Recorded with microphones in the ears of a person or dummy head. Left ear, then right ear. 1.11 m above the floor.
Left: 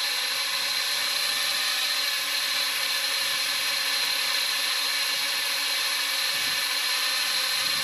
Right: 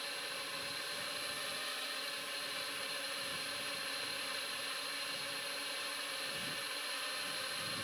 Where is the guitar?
No guitar in this recording.